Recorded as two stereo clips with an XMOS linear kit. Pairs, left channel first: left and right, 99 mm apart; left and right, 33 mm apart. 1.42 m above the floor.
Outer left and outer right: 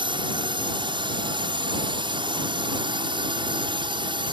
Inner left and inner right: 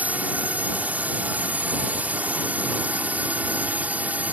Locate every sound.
0.0 s a drone: 55° right (ahead or behind)